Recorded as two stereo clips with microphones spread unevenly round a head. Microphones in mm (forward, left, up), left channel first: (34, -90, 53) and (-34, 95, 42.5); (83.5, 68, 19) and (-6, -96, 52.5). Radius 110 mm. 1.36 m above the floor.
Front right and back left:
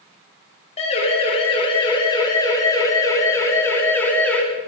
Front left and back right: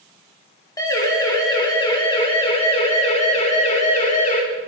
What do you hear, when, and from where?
0.8 s a siren: 10° right, 9 m; by 4.4 s 15° left, 8.5 m